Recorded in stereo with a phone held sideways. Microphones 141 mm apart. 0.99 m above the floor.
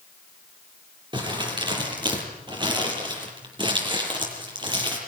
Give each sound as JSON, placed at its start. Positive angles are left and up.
{"t": 1.1, "sound": "crumpling", "side_deg": -30, "distance_m": 8.0}